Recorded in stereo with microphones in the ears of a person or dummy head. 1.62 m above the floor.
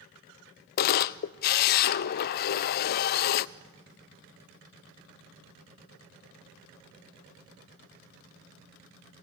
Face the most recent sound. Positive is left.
turn(degrees=50)  # may be behind; listen again after turning